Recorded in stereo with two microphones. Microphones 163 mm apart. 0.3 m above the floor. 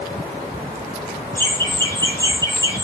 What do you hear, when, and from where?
1.4 s laughter: 15° left (ahead or behind), 5 m; by 2.9 s 20° left (ahead or behind), 5 m